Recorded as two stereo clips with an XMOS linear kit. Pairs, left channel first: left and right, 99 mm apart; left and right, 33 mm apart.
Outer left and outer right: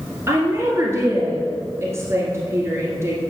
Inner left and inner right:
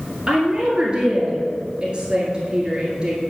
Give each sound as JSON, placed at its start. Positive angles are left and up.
{"t": 0.3, "sound": "a woman speaking", "side_deg": -25, "distance_m": 2.0}